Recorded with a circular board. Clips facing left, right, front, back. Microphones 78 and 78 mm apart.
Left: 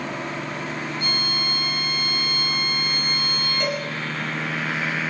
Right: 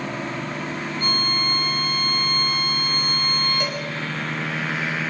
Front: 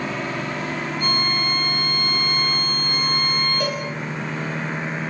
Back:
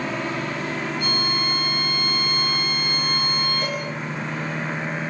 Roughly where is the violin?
Ahead right.